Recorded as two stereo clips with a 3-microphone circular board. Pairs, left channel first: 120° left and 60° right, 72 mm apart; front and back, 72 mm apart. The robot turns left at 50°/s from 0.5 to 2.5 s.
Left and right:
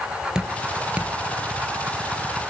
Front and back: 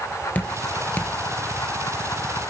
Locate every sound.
0.3 s dripping: 5° left, 0.9 m; by 1.1 s 30° right, 0.9 m